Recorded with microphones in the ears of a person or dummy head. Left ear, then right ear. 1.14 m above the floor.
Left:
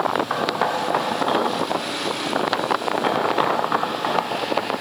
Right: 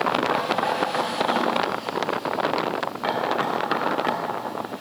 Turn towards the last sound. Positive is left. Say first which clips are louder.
# left 1 dB
turn(degrees=5)  # may be behind; listen again after turning